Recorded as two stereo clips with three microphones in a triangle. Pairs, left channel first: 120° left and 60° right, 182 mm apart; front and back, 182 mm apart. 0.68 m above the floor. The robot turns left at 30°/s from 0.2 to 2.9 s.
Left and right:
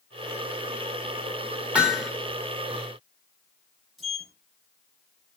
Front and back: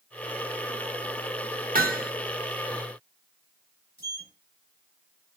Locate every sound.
1.8 s hammering: 145° right, 1.5 m; by 2.1 s 155° right, 1.5 m
4.0 s a sliding door: 30° left, 2.5 m